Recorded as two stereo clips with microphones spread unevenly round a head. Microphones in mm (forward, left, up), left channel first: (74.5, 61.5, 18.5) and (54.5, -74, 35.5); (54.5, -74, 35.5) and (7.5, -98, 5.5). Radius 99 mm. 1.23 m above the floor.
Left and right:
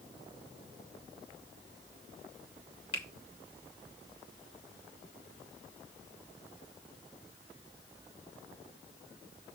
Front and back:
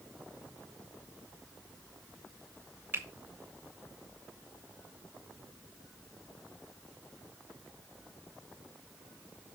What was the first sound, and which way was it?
A finger snap, 145° left.